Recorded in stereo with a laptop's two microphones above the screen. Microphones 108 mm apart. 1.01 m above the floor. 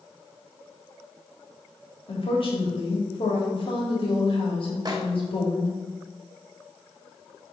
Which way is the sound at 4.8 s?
40° right (ahead or behind).